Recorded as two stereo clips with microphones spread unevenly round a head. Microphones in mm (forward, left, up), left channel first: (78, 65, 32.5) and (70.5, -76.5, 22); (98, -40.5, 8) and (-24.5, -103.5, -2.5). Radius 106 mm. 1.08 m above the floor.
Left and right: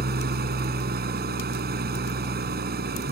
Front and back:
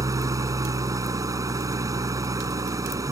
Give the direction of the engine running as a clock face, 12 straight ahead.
3 o'clock.